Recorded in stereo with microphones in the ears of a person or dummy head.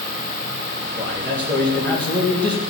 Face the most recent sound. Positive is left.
turn(degrees=10)  # may be behind; listen again after turning